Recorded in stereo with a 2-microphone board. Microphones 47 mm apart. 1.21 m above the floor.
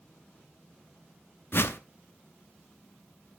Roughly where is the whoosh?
Left.